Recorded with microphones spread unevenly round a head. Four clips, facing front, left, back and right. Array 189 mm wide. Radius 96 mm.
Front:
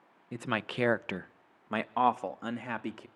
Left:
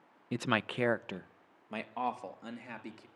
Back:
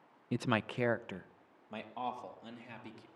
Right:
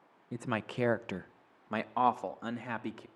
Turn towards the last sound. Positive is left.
turn(degrees=-25)